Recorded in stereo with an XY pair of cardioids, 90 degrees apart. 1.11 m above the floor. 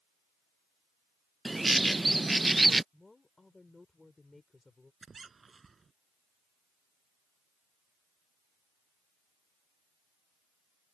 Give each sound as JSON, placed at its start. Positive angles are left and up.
{"t": 1.4, "sound": "a bird", "azimuth_deg": -15}
{"t": 2.9, "sound": "a woman speaking", "azimuth_deg": 20}
{"t": 5.0, "sound": "a squeak", "azimuth_deg": -35}